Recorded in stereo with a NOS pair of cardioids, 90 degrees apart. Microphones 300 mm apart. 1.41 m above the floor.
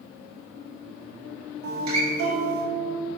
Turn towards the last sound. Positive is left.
turn(degrees=-65)